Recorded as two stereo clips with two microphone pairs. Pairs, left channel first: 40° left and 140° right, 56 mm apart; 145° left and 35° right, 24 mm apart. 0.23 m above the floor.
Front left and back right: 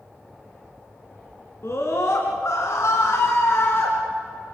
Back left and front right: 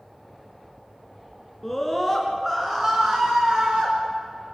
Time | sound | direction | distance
1.6 | a scream | 70° left | 3 m